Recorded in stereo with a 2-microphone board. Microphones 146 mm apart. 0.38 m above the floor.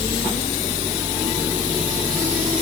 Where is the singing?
I don't hear singing.